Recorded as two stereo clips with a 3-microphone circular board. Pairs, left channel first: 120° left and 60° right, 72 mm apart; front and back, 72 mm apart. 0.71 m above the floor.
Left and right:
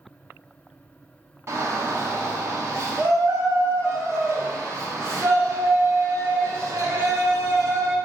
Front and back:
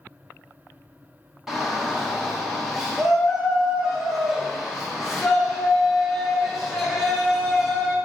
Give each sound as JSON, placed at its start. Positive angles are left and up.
{"t": 1.5, "sound": "a shout", "azimuth_deg": -95, "distance_m": 0.9}